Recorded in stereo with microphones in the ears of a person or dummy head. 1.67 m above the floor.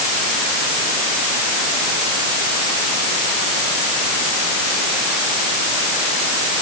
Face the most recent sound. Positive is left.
No sound to turn to.